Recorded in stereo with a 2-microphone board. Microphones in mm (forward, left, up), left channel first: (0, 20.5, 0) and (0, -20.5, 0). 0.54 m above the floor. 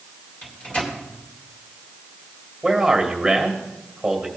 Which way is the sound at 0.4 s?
30° left (ahead or behind).